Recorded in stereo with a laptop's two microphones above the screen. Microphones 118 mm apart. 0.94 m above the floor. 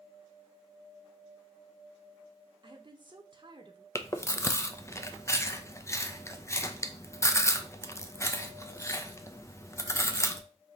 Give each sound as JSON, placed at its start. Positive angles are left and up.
{"t": 2.6, "sound": "a woman speaking", "side_deg": -40, "distance_m": 0.7}
{"t": 4.0, "sound": "chewing", "side_deg": 25, "distance_m": 0.5}